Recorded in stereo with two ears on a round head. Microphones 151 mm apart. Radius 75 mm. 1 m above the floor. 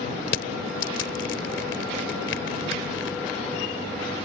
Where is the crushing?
80° left.